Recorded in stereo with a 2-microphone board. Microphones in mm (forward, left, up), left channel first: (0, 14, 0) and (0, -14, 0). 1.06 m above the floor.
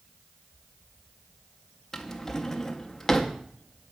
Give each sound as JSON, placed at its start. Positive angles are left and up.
{"t": 1.9, "sound": "a drawer", "side_deg": 20, "distance_m": 0.5}